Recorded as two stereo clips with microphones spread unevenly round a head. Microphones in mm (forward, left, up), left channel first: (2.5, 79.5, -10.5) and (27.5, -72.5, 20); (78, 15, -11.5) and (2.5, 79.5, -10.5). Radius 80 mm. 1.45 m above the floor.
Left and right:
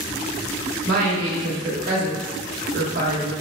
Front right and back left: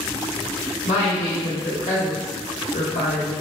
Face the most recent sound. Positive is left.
turn(degrees=-65)